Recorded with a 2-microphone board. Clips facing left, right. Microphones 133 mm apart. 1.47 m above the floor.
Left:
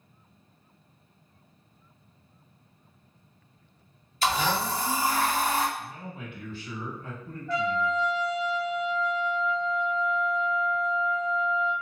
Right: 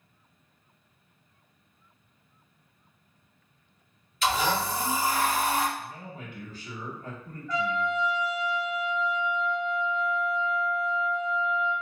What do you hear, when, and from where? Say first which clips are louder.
4.2 s a blender: even; 35° left (ahead or behind), 1.1 m
5.8 s a man speaking: left 1 dB; 40° right (ahead or behind), 1.1 m
7.5 s a trumpet: left 1 dB; 35° left (ahead or behind), 0.7 m